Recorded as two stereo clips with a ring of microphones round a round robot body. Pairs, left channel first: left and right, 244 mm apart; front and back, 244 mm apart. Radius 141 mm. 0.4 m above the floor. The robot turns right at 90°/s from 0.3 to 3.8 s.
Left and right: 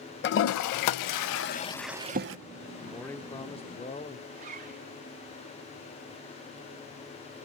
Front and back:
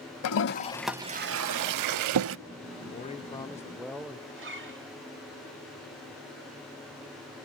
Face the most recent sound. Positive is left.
turn(degrees=-150)